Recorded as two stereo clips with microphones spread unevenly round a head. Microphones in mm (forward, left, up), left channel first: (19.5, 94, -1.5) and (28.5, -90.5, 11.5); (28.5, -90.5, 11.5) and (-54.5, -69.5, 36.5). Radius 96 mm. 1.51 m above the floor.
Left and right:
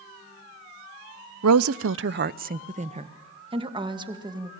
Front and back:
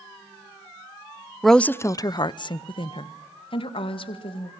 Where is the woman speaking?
105° right, 0.6 m; by 4.5 s 20° right, 2.5 m.